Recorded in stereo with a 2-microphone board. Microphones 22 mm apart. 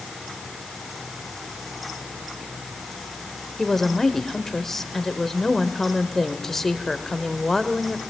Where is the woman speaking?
15° left (ahead or behind), 1.5 m.